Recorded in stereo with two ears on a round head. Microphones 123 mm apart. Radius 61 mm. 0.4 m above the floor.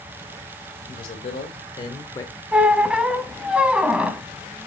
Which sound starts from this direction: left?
A man speaking, at 0.9 s.